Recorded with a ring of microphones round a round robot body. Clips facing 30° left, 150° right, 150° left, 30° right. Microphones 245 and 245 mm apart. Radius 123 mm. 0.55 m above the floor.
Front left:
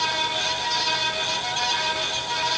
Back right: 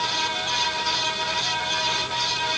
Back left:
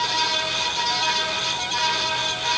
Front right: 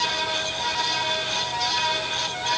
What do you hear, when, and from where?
Only background noise.